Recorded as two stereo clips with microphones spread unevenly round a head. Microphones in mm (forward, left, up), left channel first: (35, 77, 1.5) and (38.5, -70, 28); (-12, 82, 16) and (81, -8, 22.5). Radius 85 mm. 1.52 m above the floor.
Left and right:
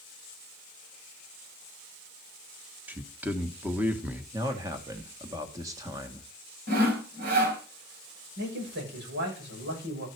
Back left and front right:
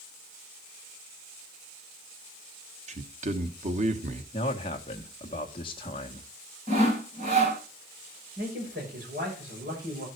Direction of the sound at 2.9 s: 10° right.